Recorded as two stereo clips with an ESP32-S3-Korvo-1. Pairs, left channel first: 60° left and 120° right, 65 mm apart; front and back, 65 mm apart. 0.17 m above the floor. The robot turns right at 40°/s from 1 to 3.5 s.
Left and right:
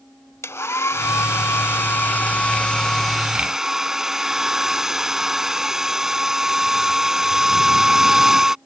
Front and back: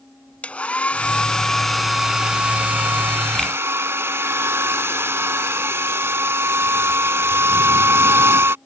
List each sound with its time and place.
0.4 s a hair dryer: 60° left; by 8.6 s 160° left